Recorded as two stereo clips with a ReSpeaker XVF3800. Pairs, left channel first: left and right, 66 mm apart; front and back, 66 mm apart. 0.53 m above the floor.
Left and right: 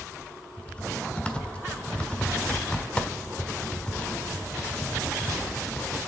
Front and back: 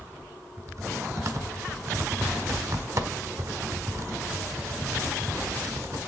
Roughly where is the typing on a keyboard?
Behind.